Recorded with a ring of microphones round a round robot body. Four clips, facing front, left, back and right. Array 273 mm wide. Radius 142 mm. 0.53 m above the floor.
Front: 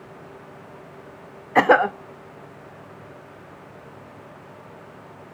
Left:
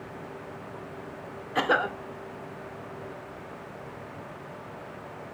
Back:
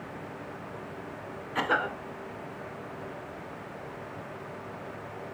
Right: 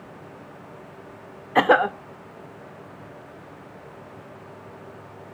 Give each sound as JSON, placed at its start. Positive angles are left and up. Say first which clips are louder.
{"t": 1.6, "sound": "a cough", "louder": "right 8 dB, front 13 dB", "azimuth_deg": -35, "distance_m": 1.2}